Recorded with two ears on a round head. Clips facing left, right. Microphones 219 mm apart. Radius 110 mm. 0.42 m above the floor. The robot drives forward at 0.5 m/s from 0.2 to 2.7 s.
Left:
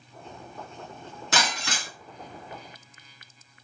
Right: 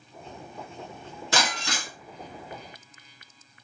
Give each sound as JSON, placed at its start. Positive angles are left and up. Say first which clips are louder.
{"t": 1.3, "sound": "breaking glass", "louder": "right 1 dB", "side_deg": 5, "distance_m": 1.8}